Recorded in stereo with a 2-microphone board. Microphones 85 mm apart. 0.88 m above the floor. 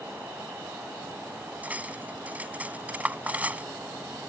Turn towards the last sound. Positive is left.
turn(degrees=-15)  # may be behind; listen again after turning